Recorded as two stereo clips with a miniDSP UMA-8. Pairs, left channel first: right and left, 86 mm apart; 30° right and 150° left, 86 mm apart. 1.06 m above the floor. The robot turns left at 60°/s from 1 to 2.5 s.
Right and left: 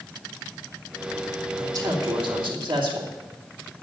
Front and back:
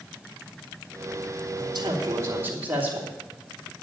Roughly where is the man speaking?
Behind left.